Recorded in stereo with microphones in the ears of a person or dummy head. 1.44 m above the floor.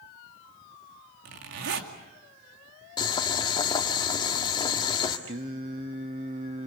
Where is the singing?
25° right (ahead or behind), 0.8 m.